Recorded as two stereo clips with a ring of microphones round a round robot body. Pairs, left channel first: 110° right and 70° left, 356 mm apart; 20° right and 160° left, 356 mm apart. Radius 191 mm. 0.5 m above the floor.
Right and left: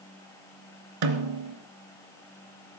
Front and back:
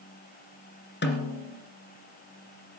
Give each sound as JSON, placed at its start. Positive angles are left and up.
{"t": 1.0, "sound": "a snare drum", "azimuth_deg": 40, "distance_m": 2.0}